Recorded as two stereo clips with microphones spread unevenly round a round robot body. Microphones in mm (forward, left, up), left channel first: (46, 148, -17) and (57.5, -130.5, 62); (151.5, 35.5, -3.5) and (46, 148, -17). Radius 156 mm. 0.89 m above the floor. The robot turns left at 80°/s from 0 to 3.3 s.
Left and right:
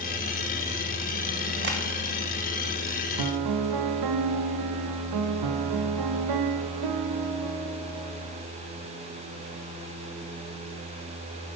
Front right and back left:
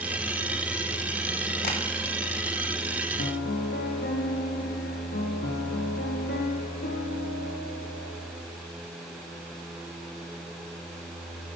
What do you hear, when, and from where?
1.6 s tapping: 40° right, 1.6 m; by 1.8 s 50° right, 1.6 m
3.2 s a piano: 65° right, 0.7 m; by 8.4 s 75° right, 0.7 m